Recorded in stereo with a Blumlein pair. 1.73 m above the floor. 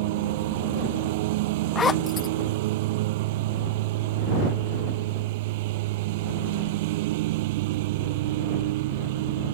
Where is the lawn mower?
50° right.